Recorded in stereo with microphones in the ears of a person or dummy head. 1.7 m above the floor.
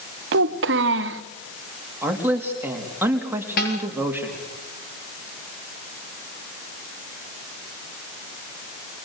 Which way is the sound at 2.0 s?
10° right (ahead or behind).